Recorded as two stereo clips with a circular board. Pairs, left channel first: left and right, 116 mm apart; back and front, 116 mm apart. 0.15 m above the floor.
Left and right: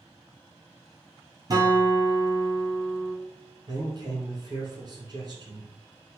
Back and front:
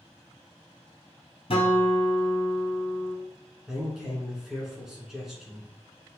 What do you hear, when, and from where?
1.5 s a guitar: 145° right, 1.3 m
3.7 s a man speaking: 85° right, 1.3 m